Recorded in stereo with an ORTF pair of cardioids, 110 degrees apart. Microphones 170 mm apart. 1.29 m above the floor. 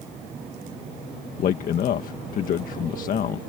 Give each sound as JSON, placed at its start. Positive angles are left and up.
{"t": 1.4, "sound": "a man speaking", "azimuth_deg": 55}